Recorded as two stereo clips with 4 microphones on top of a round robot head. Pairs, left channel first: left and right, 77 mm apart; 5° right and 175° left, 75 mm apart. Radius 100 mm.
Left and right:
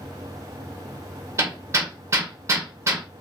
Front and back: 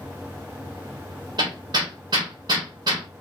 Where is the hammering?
135° right, 1.0 m.